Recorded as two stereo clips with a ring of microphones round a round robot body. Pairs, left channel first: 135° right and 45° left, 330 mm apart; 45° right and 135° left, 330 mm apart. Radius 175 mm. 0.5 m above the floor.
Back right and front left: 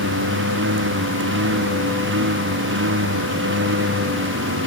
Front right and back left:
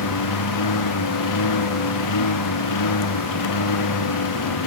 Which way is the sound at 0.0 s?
10° right.